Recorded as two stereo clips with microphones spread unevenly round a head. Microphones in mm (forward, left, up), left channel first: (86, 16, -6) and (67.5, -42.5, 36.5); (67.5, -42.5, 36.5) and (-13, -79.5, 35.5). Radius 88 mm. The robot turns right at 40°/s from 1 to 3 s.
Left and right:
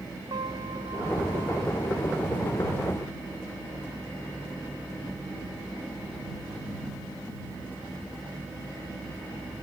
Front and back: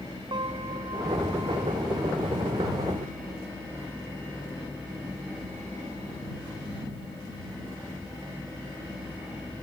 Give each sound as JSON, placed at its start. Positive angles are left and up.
{"t": 0.3, "sound": "a piano", "azimuth_deg": -125}